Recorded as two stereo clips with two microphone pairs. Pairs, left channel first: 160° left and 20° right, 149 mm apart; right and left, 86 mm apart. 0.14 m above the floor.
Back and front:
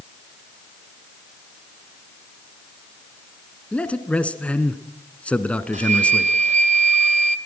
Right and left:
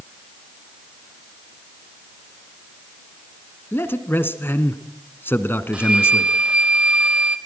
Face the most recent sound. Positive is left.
turn(degrees=15)